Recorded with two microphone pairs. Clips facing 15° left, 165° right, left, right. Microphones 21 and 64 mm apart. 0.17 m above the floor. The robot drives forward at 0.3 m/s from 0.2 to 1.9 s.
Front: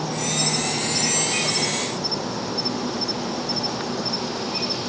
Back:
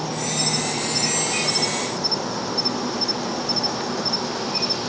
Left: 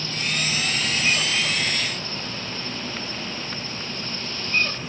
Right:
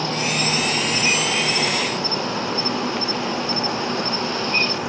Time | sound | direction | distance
0.0 | an insect | 80° right | ?